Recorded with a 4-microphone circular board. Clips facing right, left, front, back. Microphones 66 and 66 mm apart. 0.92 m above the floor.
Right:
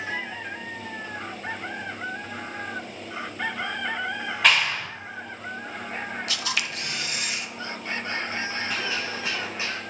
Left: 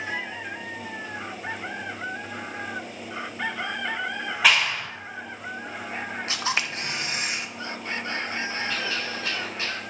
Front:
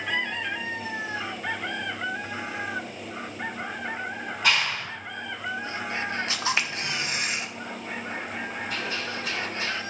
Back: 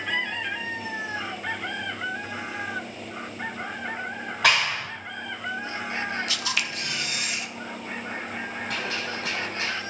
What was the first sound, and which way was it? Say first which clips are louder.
A clap: even, back 3 dB; 175° left.